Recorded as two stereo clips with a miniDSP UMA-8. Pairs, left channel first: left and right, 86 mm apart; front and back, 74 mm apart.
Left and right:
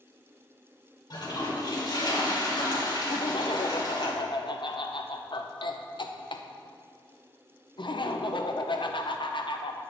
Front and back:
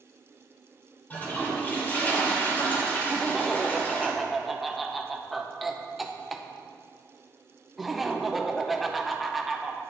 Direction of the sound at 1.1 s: 65° left.